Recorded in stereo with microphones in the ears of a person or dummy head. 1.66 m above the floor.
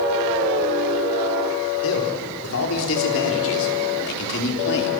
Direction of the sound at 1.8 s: 80° left.